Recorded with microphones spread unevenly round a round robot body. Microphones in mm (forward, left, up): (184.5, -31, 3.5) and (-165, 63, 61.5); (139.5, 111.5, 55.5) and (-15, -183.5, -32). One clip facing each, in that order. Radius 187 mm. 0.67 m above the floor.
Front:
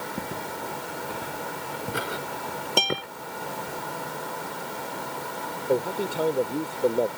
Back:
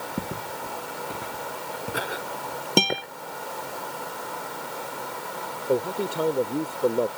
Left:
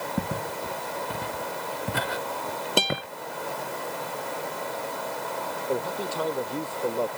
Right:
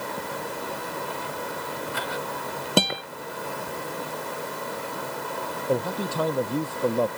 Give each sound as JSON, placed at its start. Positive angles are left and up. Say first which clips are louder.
{"t": 0.2, "sound": "footsteps", "louder": "back 3 dB, left 2 dB", "azimuth_deg": 85}
{"t": 2.8, "sound": "a guitar", "louder": "back 5 dB, right 4 dB", "azimuth_deg": -135}
{"t": 5.7, "sound": "a man speaking", "louder": "back 1 dB, right 3 dB", "azimuth_deg": -110}